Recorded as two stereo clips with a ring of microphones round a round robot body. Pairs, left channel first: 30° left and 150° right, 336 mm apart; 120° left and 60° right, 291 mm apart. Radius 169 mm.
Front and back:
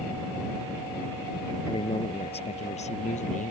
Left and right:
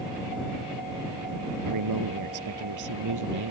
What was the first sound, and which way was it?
A man speaking, 45° right.